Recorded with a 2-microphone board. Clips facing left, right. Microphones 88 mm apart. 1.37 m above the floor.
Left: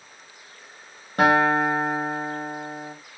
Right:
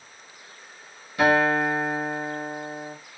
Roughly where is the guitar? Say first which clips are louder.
Left 2 dB; left.